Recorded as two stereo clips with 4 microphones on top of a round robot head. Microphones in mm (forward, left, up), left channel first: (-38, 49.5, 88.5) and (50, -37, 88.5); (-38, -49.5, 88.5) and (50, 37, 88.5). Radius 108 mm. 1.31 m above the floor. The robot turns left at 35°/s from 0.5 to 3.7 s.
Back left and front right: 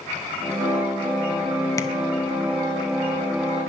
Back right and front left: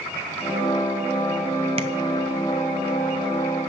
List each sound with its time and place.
1.8 s tapping: 75° left, 0.9 m; by 1.9 s 70° left, 0.9 m